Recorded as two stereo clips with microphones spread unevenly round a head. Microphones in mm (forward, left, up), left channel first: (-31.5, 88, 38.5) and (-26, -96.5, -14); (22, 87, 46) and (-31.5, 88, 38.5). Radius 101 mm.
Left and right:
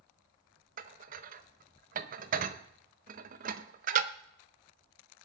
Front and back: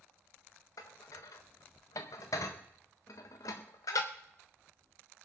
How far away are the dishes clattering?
About 0.5 m.